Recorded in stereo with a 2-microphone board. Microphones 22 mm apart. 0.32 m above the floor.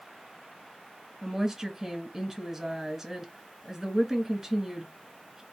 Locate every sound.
1.2 s a woman speaking: 10° right (ahead or behind), 1.5 m